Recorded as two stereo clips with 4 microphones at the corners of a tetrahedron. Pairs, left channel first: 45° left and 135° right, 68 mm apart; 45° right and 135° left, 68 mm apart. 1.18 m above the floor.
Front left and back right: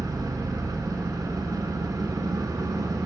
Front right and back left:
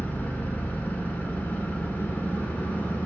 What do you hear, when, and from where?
0.0 s an engine running: 110° right, 1.7 m